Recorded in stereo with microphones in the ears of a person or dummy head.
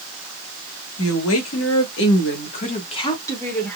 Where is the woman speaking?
80° left, 1.2 m; by 3.8 s 5° left (ahead or behind), 1.0 m.